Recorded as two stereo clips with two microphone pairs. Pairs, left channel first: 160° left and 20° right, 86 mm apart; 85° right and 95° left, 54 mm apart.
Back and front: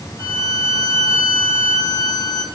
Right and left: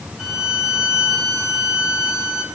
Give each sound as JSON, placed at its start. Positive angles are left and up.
{"t": 0.2, "sound": "a violin", "azimuth_deg": 155, "distance_m": 1.6}